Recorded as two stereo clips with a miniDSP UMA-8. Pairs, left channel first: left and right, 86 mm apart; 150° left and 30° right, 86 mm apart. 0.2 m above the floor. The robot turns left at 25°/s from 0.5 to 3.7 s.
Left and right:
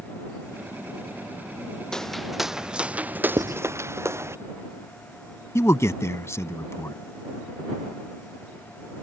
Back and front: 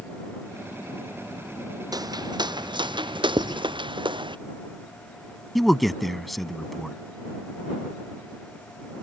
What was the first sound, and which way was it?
Footsteps, 5° left.